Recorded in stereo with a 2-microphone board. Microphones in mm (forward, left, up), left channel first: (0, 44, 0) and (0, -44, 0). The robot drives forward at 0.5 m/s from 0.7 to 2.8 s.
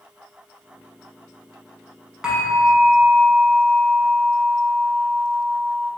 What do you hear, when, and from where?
2.2 s a bell: 10° right (ahead or behind), 0.7 m; by 5.9 s 5° right (ahead or behind), 0.9 m